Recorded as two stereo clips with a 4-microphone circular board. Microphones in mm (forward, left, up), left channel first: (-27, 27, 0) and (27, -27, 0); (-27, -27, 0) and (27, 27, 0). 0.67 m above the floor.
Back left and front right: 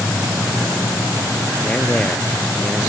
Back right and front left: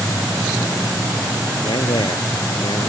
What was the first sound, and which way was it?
A man speaking, 145° right.